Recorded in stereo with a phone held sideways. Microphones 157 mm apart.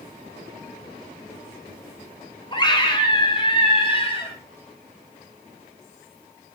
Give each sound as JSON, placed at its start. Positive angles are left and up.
{"t": 2.5, "sound": "a scream", "side_deg": 30, "distance_m": 2.0}